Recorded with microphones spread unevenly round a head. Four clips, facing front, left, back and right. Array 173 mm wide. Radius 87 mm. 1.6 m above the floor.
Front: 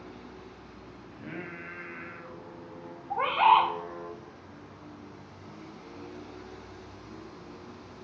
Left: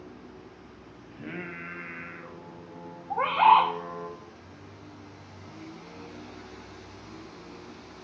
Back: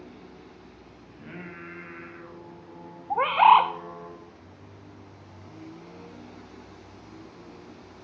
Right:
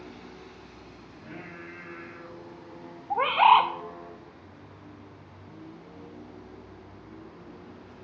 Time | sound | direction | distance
1.1 | singing | 75° left | 1.6 m
3.1 | a bird | 155° right | 0.6 m